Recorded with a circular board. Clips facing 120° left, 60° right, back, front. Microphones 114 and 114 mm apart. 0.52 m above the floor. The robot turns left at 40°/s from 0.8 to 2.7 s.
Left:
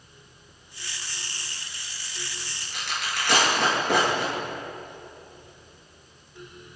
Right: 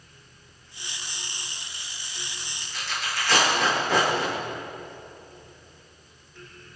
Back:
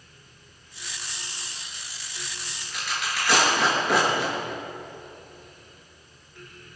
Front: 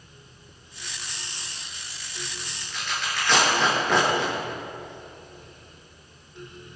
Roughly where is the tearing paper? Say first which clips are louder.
Even, even; left.